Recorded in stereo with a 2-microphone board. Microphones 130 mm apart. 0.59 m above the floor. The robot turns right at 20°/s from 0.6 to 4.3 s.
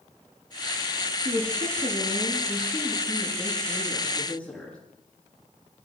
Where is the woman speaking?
55° right, 9 m; by 4.8 s 5° left, 9 m.